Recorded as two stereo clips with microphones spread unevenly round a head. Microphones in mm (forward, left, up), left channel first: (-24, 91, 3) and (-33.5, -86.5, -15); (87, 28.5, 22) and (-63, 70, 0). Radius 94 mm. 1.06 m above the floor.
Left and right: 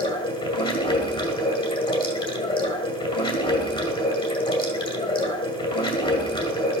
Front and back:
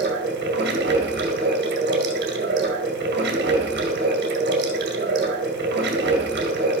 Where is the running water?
150° left, 2 m.